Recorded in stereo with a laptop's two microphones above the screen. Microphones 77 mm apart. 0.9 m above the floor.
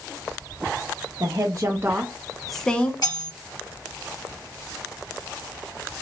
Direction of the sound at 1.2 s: 50° right (ahead or behind).